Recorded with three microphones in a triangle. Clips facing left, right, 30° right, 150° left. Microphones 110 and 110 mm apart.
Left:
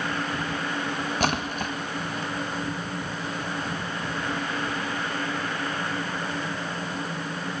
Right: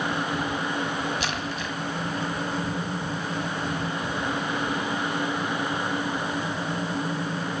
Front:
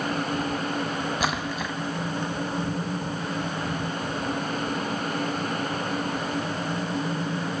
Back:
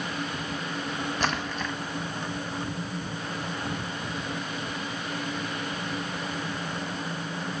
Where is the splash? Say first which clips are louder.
Left 3 dB, front 2 dB; 50° left, 0.8 m.